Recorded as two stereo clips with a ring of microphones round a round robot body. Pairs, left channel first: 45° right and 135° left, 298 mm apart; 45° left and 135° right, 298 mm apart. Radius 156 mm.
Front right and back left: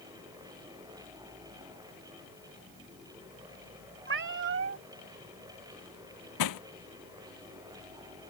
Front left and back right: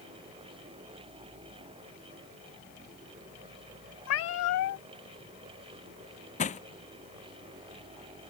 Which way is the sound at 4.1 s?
85° left.